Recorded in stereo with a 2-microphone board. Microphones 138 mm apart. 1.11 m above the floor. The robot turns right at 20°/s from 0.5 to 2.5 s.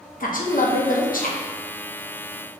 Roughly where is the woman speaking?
Left.